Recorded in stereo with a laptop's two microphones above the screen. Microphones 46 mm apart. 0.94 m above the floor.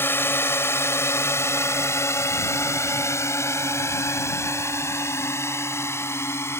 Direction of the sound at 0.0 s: 55° left (ahead or behind).